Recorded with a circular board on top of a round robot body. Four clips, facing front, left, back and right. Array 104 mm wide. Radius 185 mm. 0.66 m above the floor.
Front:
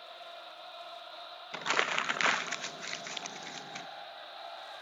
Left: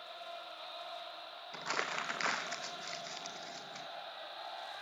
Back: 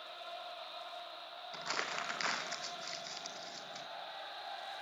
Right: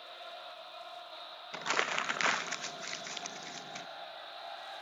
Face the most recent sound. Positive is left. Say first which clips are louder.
# right 4 dB, front 8 dB
turn(degrees=-25)